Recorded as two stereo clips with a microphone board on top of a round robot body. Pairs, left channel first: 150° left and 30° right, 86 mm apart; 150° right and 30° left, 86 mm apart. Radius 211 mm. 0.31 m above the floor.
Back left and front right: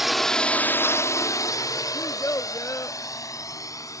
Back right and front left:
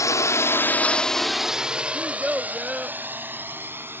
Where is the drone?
115° right; by 4.0 s 95° left.